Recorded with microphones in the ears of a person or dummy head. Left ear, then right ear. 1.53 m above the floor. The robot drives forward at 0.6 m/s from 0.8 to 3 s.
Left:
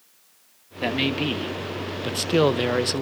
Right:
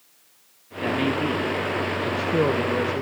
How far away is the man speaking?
About 1.8 m.